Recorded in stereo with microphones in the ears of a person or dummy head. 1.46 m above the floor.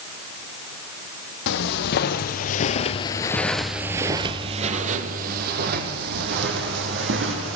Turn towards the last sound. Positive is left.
turn(degrees=-65)  # may be behind; listen again after turning